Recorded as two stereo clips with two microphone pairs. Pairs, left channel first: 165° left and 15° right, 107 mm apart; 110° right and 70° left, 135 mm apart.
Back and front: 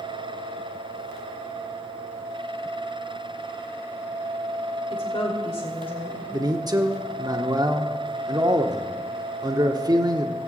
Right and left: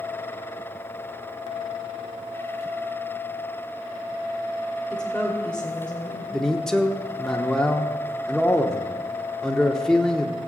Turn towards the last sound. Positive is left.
turn(degrees=-25)